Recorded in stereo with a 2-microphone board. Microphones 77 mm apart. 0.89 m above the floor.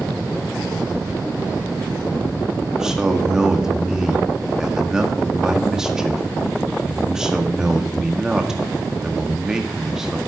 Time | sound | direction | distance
2.7 | a man speaking | 5° right (ahead or behind) | 1.7 m